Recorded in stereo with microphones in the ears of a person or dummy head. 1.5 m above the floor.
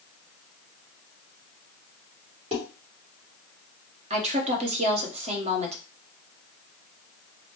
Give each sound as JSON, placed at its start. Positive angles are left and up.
{"t": 2.5, "sound": "dishes clattering", "side_deg": -30, "distance_m": 2.0}
{"t": 4.1, "sound": "a woman speaking", "side_deg": -35, "distance_m": 1.0}